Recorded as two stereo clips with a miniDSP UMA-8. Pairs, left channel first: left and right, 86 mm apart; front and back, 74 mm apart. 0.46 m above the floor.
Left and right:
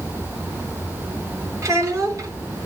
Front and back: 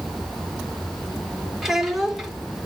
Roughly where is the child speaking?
Right.